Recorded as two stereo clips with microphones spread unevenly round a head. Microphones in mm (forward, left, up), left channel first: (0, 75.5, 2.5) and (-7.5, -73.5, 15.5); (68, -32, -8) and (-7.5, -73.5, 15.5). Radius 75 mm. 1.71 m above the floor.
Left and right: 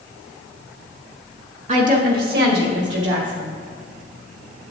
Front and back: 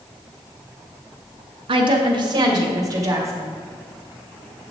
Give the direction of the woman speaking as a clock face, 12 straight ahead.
5 o'clock.